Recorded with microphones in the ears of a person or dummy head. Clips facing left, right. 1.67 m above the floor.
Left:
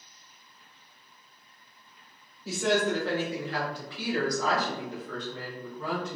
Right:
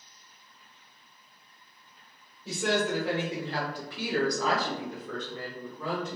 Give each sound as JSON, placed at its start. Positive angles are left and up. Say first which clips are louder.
{"t": 2.5, "sound": "a woman speaking", "louder": "left 2 dB", "side_deg": 5, "distance_m": 1.2}